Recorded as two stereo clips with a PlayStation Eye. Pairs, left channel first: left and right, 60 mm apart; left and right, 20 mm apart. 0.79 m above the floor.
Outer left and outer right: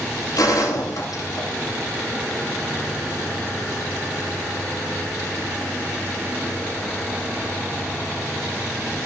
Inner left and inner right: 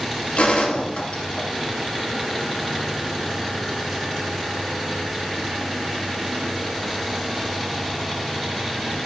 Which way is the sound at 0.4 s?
85° left.